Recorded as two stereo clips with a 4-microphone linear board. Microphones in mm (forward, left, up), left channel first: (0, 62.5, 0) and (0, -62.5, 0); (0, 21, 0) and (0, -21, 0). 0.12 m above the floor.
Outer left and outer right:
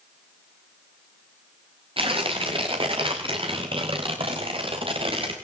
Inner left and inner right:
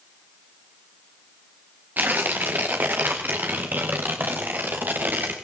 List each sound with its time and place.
2.0 s tearing paper: 45° right (ahead or behind), 4.5 m